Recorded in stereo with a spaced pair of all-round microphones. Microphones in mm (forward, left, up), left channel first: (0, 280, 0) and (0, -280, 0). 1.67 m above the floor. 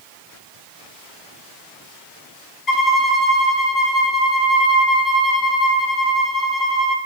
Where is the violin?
35° left (ahead or behind), 0.8 m.